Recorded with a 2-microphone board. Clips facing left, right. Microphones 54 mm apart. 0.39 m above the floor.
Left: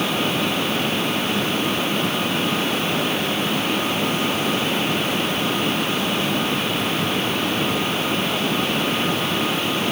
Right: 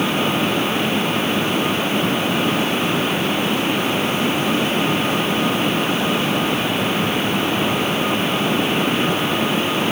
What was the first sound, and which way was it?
Only background noise.